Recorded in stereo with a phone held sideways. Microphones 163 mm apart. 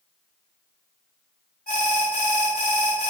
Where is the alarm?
80° left, 3.5 m.